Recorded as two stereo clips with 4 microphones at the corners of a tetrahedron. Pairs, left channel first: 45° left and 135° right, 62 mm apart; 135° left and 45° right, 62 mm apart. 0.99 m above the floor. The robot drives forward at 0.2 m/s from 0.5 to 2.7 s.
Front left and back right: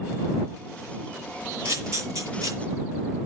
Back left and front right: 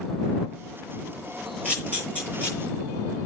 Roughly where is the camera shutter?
Behind.